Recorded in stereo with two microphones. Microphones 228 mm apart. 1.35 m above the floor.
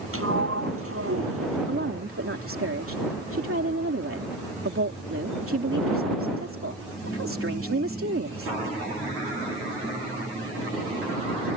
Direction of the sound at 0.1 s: 70° right (ahead or behind).